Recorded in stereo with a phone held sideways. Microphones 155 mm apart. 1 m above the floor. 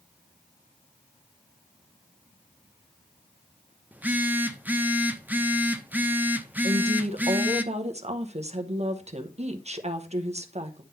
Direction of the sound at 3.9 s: 10° right (ahead or behind).